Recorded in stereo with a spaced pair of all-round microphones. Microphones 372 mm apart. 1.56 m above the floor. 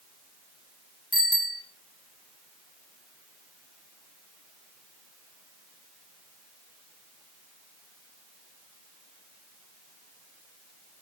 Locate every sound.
1.1 s a bicycle bell: 25° left (ahead or behind), 3 m